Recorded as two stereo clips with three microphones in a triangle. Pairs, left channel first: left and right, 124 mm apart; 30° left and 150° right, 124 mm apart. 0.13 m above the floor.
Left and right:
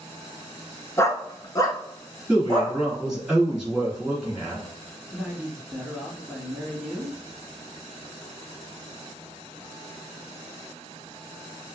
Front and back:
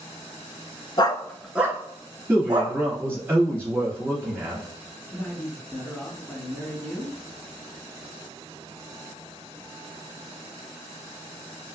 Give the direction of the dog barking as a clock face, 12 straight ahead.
11 o'clock.